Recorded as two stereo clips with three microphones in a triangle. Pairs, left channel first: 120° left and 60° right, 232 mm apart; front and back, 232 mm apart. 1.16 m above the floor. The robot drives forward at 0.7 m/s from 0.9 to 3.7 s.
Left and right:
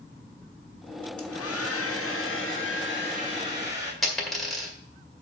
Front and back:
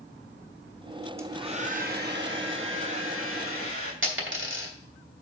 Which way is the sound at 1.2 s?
100° left.